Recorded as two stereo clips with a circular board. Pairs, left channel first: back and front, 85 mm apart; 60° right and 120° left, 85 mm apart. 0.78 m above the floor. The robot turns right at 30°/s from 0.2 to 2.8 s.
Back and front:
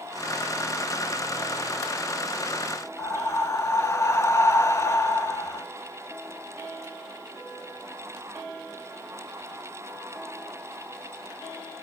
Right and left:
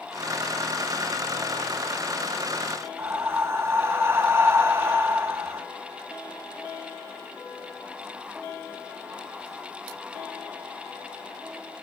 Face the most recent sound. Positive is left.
turn(degrees=155)